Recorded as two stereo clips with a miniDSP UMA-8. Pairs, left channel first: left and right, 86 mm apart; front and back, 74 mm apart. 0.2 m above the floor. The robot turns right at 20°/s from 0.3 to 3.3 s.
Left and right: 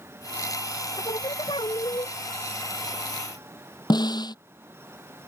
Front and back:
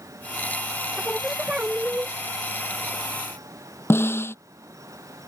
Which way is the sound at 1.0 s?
95° left.